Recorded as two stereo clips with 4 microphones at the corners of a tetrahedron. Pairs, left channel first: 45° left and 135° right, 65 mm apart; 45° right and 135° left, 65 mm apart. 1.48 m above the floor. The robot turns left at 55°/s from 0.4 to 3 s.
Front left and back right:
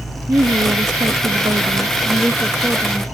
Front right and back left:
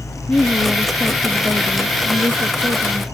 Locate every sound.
0.3 s a woman speaking: 105° right; by 3.0 s 115° left